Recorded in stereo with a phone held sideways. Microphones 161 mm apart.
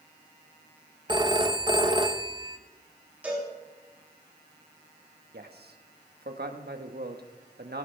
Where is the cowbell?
10° right (ahead or behind), 5 m.